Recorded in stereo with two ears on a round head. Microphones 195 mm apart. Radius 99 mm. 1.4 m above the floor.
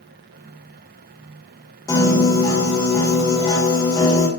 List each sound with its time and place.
1.9 s a piano: 15° left (ahead or behind), 2.0 m